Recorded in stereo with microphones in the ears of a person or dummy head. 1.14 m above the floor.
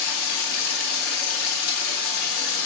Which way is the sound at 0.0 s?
80° left.